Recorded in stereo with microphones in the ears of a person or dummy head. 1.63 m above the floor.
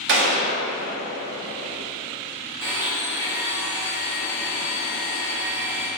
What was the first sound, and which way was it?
A gunshot, 60° right (ahead or behind).